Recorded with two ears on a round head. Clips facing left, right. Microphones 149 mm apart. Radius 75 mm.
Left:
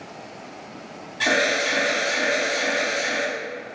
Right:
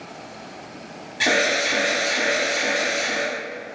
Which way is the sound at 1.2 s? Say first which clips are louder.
Right 1 dB; 20° right (ahead or behind).